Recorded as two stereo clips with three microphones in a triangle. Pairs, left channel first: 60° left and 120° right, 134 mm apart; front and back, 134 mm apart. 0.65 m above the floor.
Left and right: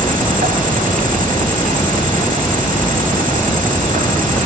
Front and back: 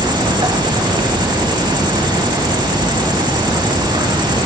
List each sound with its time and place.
0.0 s an insect: 125° right, 1.2 m